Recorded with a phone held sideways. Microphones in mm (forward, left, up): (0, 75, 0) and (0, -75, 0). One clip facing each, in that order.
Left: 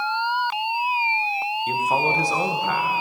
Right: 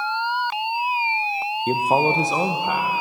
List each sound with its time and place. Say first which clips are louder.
1.7 s a man speaking: right 5 dB; 40° right (ahead or behind), 0.6 m; by 2.9 s 10° right (ahead or behind), 1.2 m